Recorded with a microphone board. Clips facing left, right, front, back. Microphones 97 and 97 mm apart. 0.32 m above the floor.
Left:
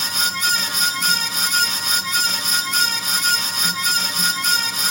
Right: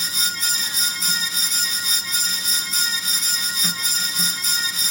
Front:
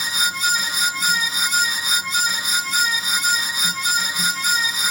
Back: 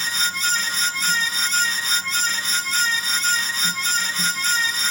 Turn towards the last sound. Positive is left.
No sound to turn to.